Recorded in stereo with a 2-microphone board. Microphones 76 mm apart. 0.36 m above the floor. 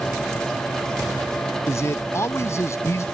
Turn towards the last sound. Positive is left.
turn(degrees=40)  # may be behind; listen again after turning